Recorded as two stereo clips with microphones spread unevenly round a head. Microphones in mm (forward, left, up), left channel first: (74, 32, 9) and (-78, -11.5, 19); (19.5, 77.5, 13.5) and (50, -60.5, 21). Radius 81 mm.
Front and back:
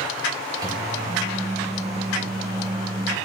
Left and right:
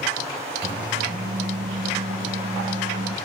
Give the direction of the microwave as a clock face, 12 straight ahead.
3 o'clock.